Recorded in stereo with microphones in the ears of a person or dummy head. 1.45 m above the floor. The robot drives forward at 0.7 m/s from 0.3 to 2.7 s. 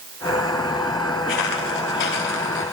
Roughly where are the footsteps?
Left.